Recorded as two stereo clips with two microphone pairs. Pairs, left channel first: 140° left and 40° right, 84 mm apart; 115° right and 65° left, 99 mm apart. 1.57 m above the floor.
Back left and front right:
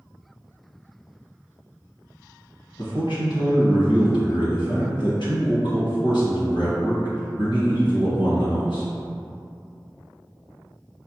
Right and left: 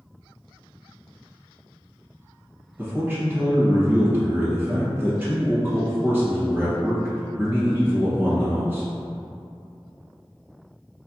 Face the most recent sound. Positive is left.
turn(degrees=135)